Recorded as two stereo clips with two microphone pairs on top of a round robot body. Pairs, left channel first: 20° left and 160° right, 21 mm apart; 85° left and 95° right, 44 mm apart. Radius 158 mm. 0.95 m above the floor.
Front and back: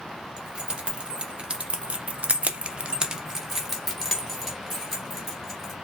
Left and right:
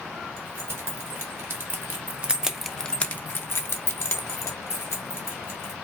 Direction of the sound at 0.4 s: 120° right.